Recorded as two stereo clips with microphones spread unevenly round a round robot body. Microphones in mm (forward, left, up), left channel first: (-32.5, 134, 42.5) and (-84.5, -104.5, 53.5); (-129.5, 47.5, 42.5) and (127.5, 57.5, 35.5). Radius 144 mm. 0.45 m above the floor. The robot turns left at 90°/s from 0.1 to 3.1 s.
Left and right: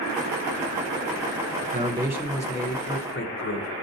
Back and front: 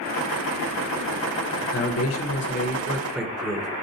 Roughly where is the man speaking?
Behind right.